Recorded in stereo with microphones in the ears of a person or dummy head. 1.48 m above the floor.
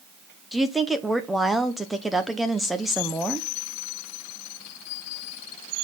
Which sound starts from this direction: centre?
A woman speaking, at 0.5 s.